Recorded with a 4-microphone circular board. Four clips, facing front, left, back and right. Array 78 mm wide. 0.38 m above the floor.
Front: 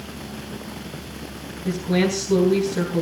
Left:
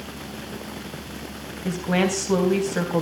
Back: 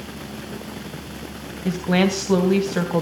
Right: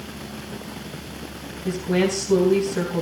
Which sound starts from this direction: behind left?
A woman speaking, at 1.6 s.